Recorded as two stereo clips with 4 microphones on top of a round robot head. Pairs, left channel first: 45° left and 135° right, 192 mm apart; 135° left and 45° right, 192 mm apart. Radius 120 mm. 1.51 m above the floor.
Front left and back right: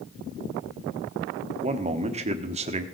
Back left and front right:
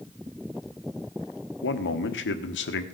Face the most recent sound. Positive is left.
turn(degrees=165)